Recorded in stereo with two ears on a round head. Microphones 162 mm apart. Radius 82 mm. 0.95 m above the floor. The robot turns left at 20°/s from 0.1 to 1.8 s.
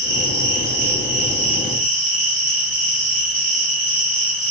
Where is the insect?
95° right, 1.5 m; by 4.5 s 130° right, 1.5 m.